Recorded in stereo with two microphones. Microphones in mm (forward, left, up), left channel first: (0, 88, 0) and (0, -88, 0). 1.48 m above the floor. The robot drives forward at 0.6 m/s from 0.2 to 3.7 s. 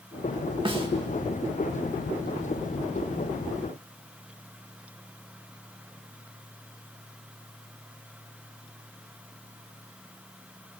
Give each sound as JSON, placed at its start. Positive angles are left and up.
{"t": 0.7, "sound": "a snare drum", "side_deg": -25, "distance_m": 2.5}